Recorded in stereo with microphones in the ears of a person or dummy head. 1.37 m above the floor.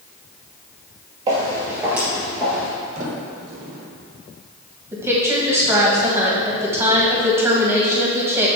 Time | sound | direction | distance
1.3 | footsteps | 20° right (ahead or behind) | 2.0 m
3.0 | a sliding door | 45° right (ahead or behind) | 1.4 m
4.9 | a woman speaking | 15° right (ahead or behind) | 1.6 m